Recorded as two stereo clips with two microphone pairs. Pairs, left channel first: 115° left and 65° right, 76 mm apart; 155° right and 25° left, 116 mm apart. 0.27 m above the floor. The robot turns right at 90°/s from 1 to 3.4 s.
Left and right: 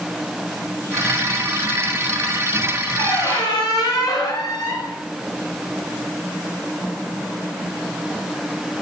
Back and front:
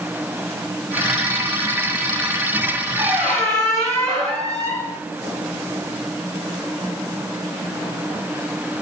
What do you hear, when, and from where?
3.0 s a squeak: 95° left, 1.2 m; by 5.0 s 130° left, 1.2 m